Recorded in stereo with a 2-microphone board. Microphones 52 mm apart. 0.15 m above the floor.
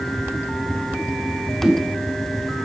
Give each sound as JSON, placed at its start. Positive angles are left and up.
{"t": 1.6, "sound": "a whoosh", "side_deg": -15, "distance_m": 1.3}